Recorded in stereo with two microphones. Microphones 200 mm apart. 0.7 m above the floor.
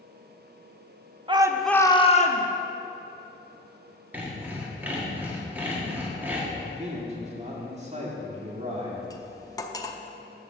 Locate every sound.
1.3 s a shout: 25° right (ahead or behind), 0.7 m; by 2.5 s 45° left (ahead or behind), 1.0 m
4.1 s sawing: 10° right (ahead or behind), 1.5 m
6.6 s a man speaking: 35° right (ahead or behind), 2 m
9.1 s cutlery clinking: 15° left (ahead or behind), 0.6 m